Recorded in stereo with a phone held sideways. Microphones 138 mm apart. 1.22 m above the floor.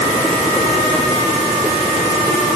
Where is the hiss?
I don't hear a hiss.